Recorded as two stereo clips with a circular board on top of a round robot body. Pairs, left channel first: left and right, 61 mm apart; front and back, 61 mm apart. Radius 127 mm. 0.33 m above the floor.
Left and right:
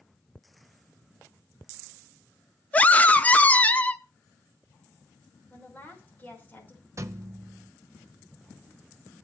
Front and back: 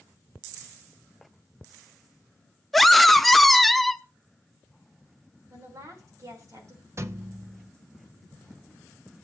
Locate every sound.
2.7 s a scream: 85° left, 1.0 m
5.5 s a woman speaking: 155° left, 5.5 m
7.0 s a thud: 135° right, 0.6 m